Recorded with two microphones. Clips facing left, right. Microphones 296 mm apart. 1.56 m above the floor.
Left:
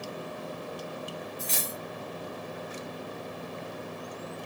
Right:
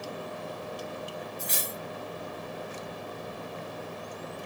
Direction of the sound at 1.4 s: 20° right (ahead or behind).